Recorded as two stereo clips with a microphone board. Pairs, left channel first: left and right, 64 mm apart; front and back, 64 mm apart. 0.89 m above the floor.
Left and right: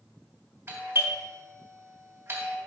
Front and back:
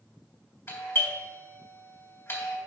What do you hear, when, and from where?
0.7 s a doorbell: 35° right, 3 m